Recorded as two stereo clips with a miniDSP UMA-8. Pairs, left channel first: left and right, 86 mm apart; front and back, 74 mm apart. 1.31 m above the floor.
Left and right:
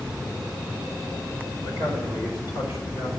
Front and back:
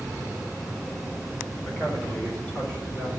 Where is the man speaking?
75° left, 4.5 m; by 3.1 s 65° left, 4.5 m.